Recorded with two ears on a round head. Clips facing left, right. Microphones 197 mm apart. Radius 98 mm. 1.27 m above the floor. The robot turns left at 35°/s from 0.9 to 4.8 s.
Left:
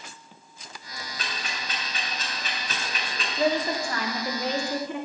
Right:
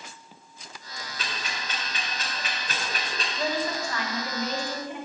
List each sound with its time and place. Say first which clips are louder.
1.2 s ticking: even; 75° right (ahead or behind), 3 m; by 3.3 s 30° right (ahead or behind), 3 m
3.4 s a woman speaking: left 5 dB; 170° left, 1.3 m; by 5.0 s 120° left, 1.3 m